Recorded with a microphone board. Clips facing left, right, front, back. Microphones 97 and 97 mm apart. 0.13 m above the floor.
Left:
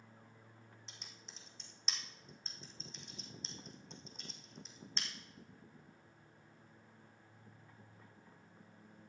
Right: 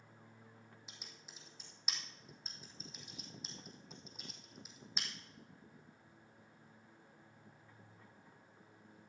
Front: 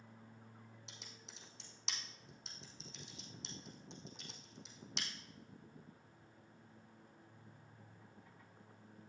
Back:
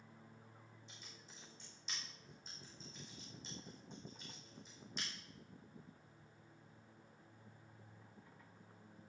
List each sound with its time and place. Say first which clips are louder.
0.9 s typing on a keyboard: even, front 2 dB; 5° right, 2.5 m